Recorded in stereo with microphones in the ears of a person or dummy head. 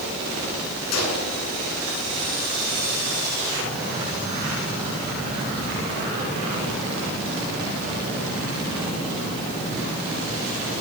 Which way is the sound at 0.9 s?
85° left.